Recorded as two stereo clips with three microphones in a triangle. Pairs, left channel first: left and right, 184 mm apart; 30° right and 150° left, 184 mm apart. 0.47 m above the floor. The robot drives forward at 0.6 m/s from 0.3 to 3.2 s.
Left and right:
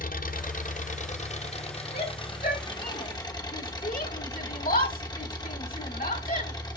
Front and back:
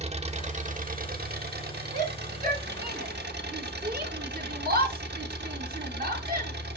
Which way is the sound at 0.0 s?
110° left.